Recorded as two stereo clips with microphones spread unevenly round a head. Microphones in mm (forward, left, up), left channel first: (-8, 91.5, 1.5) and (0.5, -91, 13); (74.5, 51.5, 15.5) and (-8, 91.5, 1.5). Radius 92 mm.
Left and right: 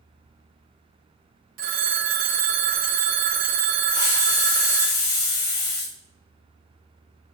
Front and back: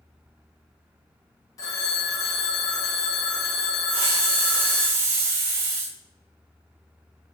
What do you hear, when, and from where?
1.6 s a phone ringing: 65° right, 0.9 m
3.9 s a hiss: 165° left, 3.5 m